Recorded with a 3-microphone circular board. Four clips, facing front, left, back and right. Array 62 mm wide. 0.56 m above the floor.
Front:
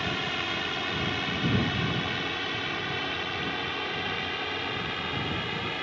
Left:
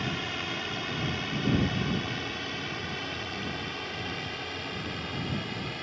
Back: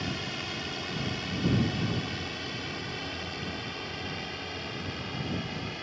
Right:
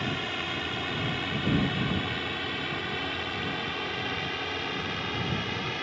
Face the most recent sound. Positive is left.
turn(degrees=-35)